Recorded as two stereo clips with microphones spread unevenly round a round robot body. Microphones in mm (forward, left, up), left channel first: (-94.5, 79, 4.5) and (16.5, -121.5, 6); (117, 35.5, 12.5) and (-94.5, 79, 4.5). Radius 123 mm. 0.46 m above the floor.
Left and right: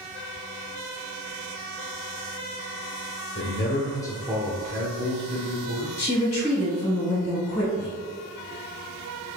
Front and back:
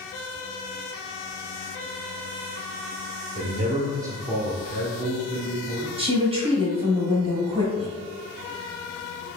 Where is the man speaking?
130° left, 1.1 m; by 5.9 s 65° right, 1.8 m.